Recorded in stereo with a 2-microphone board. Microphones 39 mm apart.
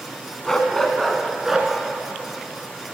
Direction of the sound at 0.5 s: 15° left (ahead or behind).